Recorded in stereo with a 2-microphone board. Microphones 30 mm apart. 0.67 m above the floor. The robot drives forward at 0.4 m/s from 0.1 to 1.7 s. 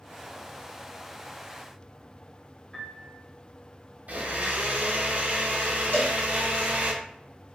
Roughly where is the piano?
Centre.